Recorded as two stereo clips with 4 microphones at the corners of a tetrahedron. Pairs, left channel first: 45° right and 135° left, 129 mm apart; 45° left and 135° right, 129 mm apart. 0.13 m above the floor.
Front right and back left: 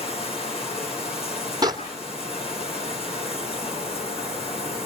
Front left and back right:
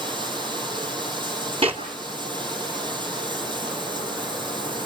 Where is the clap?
170° right, 2.5 m.